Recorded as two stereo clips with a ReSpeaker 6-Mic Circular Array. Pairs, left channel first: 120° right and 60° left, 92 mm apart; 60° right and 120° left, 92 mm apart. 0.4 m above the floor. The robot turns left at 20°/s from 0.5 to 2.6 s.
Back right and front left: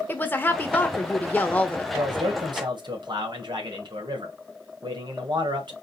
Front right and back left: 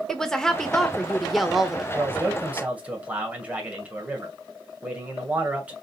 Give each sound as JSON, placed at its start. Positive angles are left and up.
{"t": 0.1, "sound": "a woman speaking", "azimuth_deg": -135, "distance_m": 0.8}
{"t": 1.9, "sound": "a man speaking", "azimuth_deg": 60, "distance_m": 1.8}